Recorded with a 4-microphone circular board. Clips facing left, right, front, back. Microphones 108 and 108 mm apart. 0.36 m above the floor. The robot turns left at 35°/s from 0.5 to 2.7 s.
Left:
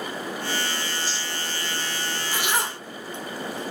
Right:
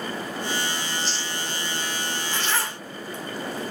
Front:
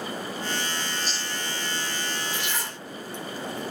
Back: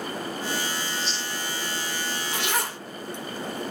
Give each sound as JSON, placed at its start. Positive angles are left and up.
{"t": 0.9, "sound": "chewing", "azimuth_deg": -80, "distance_m": 3.0}
{"t": 2.3, "sound": "a zipper", "azimuth_deg": 170, "distance_m": 0.5}